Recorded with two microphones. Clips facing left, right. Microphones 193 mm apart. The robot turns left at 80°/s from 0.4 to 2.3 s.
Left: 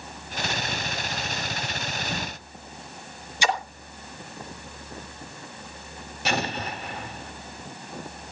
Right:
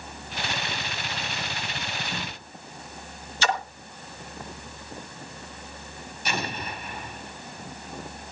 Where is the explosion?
75° left (ahead or behind), 2.5 m.